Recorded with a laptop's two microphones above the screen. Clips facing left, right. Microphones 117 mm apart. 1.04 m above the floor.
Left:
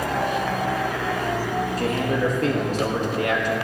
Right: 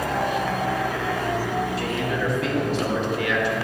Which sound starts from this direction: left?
A man speaking, at 1.8 s.